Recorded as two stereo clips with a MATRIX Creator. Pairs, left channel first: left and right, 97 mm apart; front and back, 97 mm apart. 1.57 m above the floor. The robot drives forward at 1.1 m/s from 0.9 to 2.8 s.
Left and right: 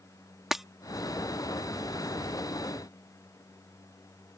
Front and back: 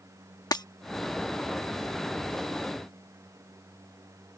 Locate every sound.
0.5 s breaking glass: 5° right